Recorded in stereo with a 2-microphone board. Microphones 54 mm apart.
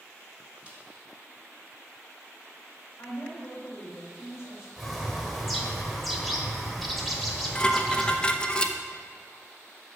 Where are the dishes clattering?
15° left (ahead or behind), 0.7 m.